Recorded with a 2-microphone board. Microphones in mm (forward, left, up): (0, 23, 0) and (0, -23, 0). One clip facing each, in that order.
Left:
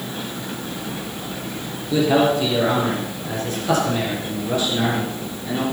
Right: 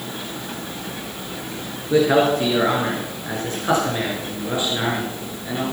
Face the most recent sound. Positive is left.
turn(degrees=-15)  # may be behind; listen again after turning